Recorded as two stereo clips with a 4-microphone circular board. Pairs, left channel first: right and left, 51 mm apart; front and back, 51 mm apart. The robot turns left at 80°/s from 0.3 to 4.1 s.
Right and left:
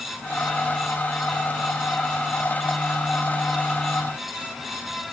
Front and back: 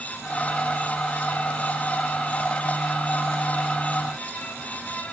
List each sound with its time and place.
Only background noise.